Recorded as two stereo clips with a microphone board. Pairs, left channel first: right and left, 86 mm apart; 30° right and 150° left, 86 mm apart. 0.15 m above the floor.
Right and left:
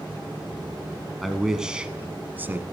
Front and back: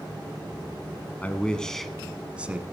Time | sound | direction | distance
1.2 | a man speaking | straight ahead | 1.1 m